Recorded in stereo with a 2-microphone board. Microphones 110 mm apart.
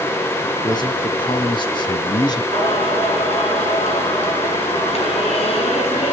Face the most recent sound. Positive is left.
turn(degrees=65)  # may be behind; listen again after turning